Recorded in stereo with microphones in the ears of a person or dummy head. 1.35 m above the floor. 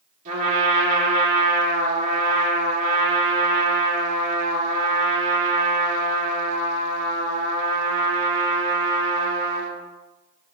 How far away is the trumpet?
About 2.5 m.